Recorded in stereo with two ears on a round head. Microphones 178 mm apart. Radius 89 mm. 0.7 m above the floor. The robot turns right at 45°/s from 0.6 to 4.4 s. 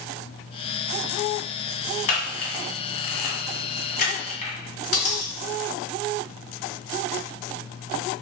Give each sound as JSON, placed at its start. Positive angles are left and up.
{"t": 2.1, "sound": "a camera shutter", "side_deg": 40, "distance_m": 1.3}
{"t": 4.9, "sound": "a dropped coin", "side_deg": 80, "distance_m": 1.9}